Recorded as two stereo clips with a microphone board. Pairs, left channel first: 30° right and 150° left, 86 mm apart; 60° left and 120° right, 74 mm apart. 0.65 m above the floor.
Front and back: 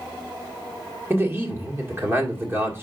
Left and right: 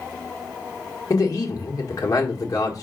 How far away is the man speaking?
About 1.6 m.